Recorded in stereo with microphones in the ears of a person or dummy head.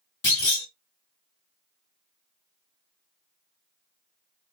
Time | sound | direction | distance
0.2 | a clunk | 30° left (ahead or behind) | 1.3 m